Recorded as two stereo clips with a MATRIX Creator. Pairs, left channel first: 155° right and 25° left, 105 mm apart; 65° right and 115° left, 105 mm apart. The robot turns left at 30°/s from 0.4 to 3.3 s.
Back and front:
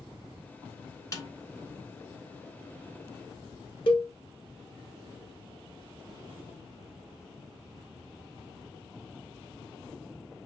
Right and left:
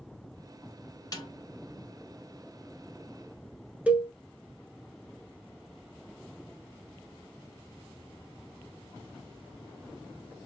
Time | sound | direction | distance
1.1 | a snare drum | 110° right | 1.0 m
3.9 | a cowbell | 170° right | 0.8 m